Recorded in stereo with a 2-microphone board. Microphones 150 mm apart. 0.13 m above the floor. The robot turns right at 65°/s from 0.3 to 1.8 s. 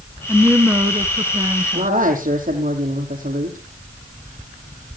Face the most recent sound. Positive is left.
turn(degrees=-60)  # may be behind; listen again after turning